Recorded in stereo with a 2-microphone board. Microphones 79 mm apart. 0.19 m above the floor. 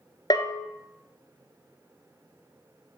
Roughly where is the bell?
Left.